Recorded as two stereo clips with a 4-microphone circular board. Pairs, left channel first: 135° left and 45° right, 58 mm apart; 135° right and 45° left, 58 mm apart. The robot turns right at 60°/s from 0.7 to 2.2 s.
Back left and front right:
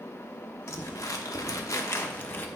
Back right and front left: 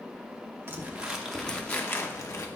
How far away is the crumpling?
About 0.9 m.